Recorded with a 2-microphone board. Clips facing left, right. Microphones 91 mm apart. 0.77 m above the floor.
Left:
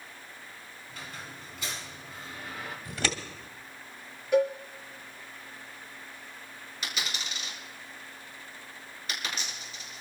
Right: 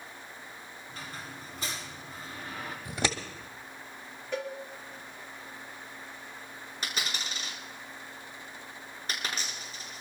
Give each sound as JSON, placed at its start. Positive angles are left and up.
{"t": 0.9, "sound": "a squeak", "side_deg": -40, "distance_m": 3.5}
{"t": 2.9, "sound": "scissors", "side_deg": -25, "distance_m": 1.6}
{"t": 4.3, "sound": "a cowbell", "side_deg": 15, "distance_m": 4.5}
{"t": 6.8, "sound": "a dropped coin", "side_deg": -40, "distance_m": 5.0}